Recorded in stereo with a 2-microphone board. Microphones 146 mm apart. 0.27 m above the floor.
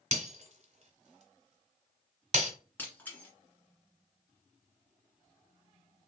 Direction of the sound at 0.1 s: 50° right (ahead or behind).